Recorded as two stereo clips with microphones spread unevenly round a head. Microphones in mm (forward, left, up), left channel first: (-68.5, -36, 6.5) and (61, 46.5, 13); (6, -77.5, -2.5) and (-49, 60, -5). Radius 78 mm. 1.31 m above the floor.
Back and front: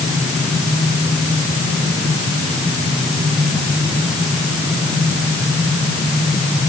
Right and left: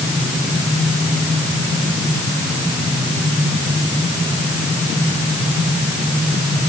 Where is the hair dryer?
No hair dryer in this recording.